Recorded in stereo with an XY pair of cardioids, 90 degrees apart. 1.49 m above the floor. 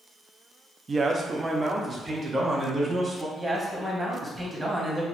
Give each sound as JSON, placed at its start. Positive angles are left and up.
{"t": 0.9, "sound": "a man speaking", "azimuth_deg": -40, "distance_m": 0.7}
{"t": 3.4, "sound": "a man speaking", "azimuth_deg": -20, "distance_m": 1.7}